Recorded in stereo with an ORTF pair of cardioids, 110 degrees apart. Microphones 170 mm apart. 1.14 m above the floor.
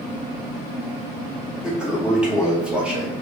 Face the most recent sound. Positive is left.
turn(degrees=-5)